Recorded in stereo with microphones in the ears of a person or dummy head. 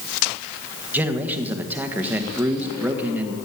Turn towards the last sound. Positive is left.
turn(degrees=-10)  # may be behind; listen again after turning